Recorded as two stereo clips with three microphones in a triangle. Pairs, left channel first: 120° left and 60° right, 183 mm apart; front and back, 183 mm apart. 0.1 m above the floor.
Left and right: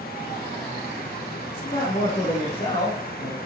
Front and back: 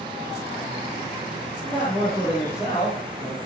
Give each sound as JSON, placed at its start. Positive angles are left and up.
{"t": 1.6, "sound": "a man speaking", "azimuth_deg": 90, "distance_m": 4.0}